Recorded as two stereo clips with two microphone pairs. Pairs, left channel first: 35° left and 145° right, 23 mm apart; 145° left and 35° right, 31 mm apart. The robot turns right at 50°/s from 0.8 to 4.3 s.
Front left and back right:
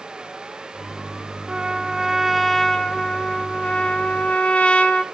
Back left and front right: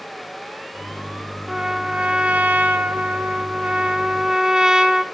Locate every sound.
1.5 s a trumpet: 105° right, 0.8 m; by 5.0 s 35° left, 0.8 m